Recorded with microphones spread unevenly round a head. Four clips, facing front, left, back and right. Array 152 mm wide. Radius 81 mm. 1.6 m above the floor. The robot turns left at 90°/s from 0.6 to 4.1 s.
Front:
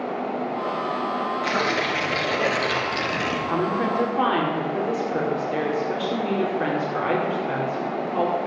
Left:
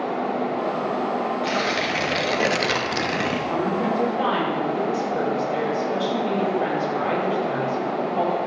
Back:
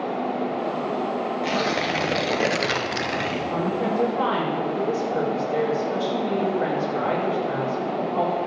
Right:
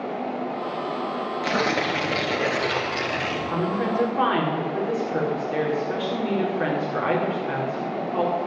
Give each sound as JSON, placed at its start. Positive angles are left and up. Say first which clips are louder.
{"t": 1.4, "sound": "tearing paper", "louder": "even, even", "azimuth_deg": -110, "distance_m": 1.8}
{"t": 3.5, "sound": "a woman speaking", "louder": "even, front 1 dB", "azimuth_deg": 25, "distance_m": 5.0}